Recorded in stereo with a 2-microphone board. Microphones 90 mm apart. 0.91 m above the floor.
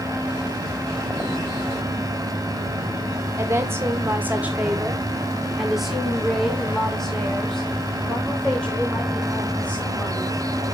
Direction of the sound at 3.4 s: 30° right (ahead or behind).